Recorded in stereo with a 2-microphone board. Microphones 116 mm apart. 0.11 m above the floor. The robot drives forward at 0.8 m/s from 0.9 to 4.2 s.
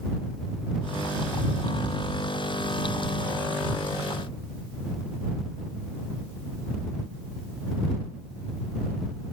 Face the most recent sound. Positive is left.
No sound to turn to.